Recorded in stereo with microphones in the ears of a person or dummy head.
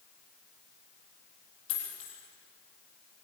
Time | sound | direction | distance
1.7 | a dropped coin | 75° left (ahead or behind) | 7.5 m